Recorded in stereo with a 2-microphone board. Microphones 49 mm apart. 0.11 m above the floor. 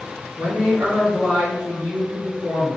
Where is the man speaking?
40° right (ahead or behind), 2 m.